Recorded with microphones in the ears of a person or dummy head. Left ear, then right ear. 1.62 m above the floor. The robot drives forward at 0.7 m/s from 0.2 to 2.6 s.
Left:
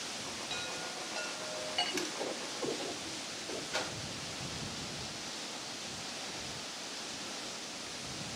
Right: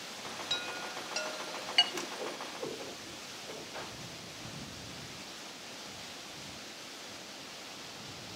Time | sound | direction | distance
0.5 | a chime | 50° right (ahead or behind) | 3 m
1.9 | a whoosh | 5° right (ahead or behind) | 5 m
3.7 | a whoosh | 50° left (ahead or behind) | 5.5 m